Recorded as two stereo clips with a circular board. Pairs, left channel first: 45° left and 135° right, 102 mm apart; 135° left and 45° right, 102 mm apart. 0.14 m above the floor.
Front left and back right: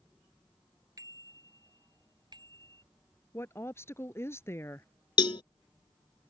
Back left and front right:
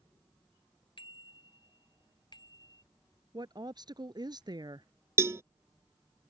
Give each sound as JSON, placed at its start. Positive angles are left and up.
{"t": 1.0, "sound": "a bicycle bell", "azimuth_deg": 170}
{"t": 3.3, "sound": "a woman speaking", "azimuth_deg": -15}
{"t": 5.2, "sound": "a cowbell", "azimuth_deg": 15}